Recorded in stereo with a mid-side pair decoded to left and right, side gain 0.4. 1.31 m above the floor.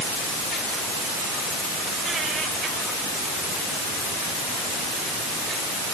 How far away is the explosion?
I don't hear an explosion.